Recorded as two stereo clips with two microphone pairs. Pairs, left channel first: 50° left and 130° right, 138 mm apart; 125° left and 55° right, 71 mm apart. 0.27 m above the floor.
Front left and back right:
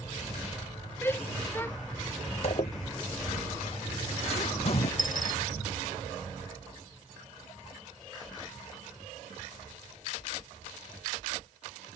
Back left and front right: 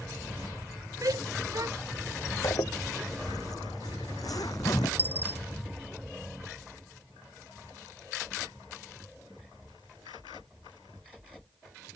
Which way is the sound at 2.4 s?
95° left.